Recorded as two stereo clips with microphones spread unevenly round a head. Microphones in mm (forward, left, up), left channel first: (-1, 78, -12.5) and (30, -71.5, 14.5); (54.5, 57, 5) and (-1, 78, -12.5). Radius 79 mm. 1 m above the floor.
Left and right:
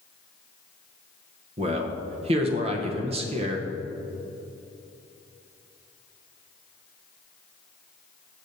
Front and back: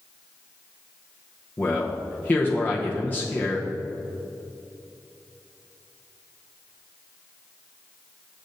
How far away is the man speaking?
About 0.8 m.